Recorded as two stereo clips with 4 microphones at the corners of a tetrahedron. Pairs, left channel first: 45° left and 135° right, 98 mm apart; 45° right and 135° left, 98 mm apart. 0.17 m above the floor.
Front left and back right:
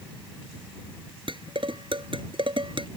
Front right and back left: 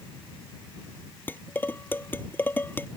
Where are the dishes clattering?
115° right.